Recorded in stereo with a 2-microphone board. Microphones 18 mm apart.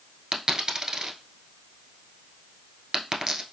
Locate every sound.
0.3 s a dropped coin: 40° right (ahead or behind), 1.0 m